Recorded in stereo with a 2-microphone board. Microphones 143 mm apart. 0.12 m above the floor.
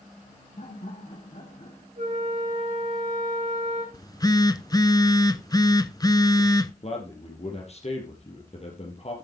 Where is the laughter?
65° left (ahead or behind), 4 m.